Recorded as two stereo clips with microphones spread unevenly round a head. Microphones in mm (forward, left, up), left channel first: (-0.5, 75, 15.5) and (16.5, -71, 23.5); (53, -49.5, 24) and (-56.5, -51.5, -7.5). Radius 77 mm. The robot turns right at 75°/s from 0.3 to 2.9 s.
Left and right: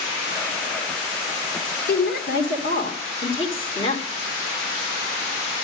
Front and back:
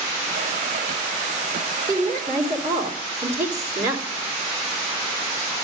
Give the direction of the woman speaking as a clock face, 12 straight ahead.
10 o'clock.